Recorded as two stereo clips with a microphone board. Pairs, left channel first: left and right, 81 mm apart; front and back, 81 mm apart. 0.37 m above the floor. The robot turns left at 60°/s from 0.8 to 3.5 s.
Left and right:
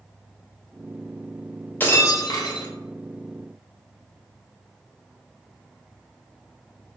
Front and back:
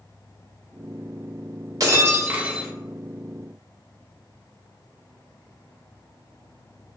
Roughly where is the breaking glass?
Behind left.